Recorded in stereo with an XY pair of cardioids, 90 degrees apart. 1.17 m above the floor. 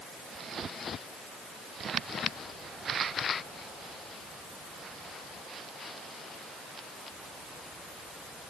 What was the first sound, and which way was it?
Only background noise.